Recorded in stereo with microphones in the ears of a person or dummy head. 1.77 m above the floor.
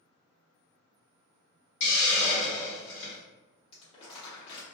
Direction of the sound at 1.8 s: 45° left (ahead or behind).